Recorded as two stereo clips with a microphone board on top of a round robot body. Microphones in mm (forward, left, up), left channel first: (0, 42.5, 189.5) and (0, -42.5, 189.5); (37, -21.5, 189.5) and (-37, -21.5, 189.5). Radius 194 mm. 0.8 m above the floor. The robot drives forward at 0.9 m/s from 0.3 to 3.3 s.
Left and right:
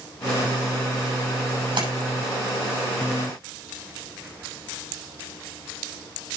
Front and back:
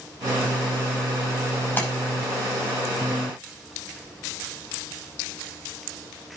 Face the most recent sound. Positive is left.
turn(degrees=-75)